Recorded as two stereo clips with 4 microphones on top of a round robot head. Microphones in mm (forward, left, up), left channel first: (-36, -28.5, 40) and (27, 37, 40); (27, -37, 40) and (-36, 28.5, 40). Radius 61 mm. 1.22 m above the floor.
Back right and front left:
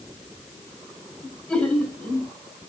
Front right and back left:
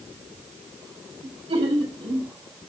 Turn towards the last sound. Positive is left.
turn(degrees=150)